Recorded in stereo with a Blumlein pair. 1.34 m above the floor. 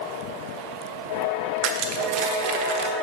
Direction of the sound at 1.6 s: 45° right.